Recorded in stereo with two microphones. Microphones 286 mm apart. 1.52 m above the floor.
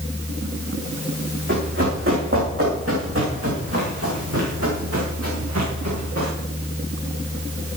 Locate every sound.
1.5 s running footsteps: 45° right (ahead or behind), 7 m; by 6.3 s 60° right (ahead or behind), 8.5 m